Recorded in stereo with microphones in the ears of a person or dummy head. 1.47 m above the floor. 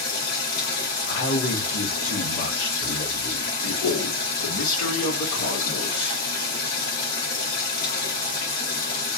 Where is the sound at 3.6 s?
75° left (ahead or behind), 2 m.